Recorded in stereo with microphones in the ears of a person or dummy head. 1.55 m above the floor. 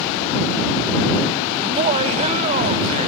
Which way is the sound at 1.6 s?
40° right (ahead or behind).